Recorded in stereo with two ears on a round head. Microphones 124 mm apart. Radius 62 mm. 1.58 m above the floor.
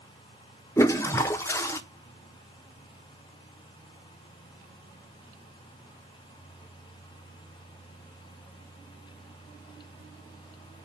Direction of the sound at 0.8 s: 20° left (ahead or behind).